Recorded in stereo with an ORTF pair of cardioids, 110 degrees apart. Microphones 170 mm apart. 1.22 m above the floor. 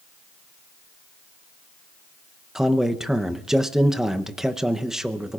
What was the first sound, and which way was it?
A man speaking, 5° right.